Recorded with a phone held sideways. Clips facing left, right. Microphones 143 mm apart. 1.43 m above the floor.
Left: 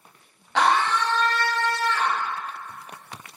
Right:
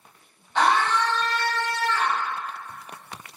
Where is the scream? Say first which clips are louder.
Even; 80° left, 0.8 m.